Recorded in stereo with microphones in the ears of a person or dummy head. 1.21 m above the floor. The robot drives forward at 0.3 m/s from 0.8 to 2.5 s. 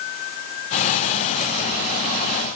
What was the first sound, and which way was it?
Only background noise.